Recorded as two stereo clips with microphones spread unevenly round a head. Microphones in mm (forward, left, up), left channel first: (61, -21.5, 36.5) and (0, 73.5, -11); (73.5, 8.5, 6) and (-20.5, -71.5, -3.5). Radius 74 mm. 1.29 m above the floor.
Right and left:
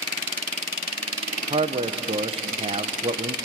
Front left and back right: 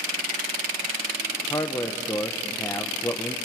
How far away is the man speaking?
About 1.1 m.